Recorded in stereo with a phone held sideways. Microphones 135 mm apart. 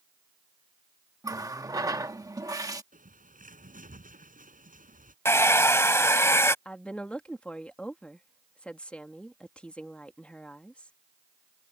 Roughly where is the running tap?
Right.